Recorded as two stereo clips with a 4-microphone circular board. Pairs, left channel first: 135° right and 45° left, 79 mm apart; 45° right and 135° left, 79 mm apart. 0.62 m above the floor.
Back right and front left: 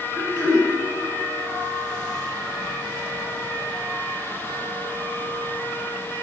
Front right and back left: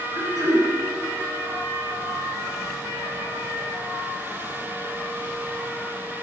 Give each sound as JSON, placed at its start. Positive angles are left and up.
{"t": 0.1, "sound": "throat clearing", "azimuth_deg": -175, "distance_m": 2.5}